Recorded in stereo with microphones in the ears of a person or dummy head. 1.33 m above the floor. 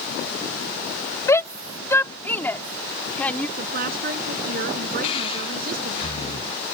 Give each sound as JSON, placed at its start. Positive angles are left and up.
{"t": 1.3, "sound": "a shout", "side_deg": 20}
{"t": 3.6, "sound": "a woman speaking", "side_deg": -60}
{"t": 5.0, "sound": "breathing", "side_deg": 30}